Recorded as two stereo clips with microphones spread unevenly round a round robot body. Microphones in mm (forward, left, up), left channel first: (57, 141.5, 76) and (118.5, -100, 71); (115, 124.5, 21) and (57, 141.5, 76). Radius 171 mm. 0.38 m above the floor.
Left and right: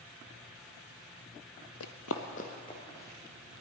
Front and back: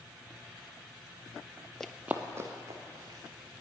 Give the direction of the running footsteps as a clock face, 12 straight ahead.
9 o'clock.